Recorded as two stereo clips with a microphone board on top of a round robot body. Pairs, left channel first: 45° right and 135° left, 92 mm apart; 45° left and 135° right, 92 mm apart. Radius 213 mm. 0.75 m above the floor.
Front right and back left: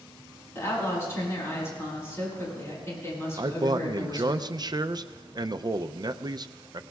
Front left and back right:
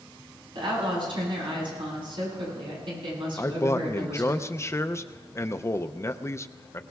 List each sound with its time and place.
0.6 s a woman speaking: 110° right, 8.5 m
3.4 s a man speaking: 100° left, 0.7 m